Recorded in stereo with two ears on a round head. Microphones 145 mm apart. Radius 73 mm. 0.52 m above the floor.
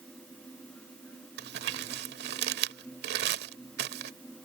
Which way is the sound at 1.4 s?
70° right (ahead or behind).